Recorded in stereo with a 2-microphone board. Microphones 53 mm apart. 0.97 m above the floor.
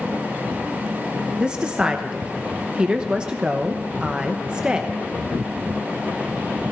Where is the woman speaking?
20° right (ahead or behind), 0.9 m.